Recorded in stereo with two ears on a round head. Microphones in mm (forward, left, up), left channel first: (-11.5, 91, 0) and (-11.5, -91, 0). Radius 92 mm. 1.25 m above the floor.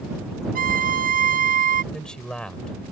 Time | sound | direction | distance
0.6 | a violin | 45° right (ahead or behind) | ?
1.9 | a man speaking | 5° left (ahead or behind) | ?